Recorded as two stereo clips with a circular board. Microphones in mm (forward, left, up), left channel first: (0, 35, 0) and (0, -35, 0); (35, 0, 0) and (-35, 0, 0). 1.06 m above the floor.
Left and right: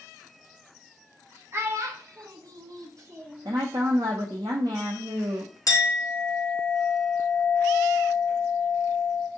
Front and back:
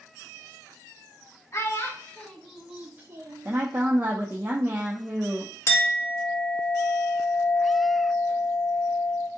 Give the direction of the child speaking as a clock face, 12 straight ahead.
1 o'clock.